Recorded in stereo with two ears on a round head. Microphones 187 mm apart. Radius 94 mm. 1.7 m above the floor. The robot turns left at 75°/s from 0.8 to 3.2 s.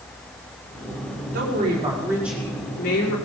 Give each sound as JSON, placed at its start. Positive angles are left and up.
{"t": 1.3, "sound": "a woman speaking", "azimuth_deg": -105, "distance_m": 6.0}